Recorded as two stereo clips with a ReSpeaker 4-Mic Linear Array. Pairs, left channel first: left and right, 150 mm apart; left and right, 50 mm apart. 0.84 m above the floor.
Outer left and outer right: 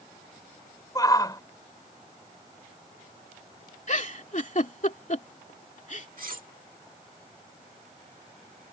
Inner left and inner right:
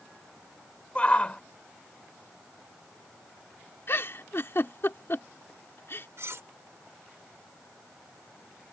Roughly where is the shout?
Left.